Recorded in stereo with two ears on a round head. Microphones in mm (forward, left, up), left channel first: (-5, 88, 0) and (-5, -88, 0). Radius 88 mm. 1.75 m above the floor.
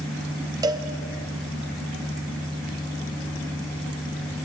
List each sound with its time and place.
0.6 s a cowbell: 20° right (ahead or behind), 1.0 m